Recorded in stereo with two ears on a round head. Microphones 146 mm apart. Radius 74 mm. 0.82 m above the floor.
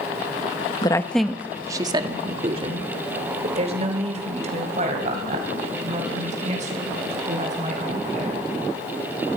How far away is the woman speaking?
About 0.8 m.